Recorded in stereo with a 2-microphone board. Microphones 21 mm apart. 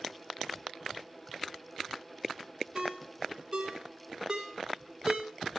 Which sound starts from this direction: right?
A ringtone, at 2.8 s.